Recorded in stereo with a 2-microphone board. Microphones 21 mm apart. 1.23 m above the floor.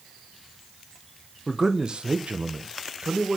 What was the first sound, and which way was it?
A man speaking, 20° right (ahead or behind).